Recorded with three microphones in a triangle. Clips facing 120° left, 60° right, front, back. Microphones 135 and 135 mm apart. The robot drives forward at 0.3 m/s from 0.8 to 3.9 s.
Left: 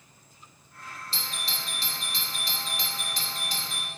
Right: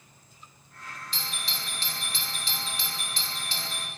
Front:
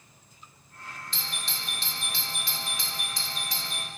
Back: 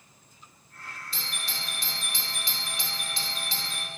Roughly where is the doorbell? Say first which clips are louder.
Left 1 dB, back 1 dB; left.